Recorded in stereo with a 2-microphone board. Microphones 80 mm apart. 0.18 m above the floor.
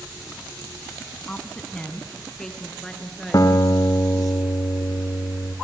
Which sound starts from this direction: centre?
A woman speaking, at 1.3 s.